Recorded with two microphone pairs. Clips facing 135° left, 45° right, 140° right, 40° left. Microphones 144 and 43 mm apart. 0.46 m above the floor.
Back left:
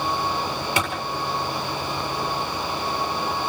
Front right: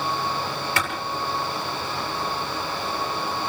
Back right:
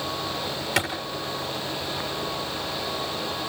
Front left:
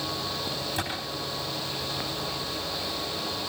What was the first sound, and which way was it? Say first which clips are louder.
A clap: back left 3 dB, back right 9 dB; 150° right.